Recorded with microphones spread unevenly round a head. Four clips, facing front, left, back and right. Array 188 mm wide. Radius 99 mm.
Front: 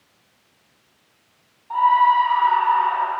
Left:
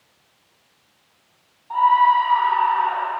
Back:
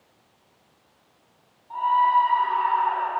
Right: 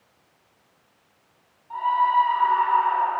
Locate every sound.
1.7 s a scream: 55° left, 9 m; by 3.1 s 50° left, 10.5 m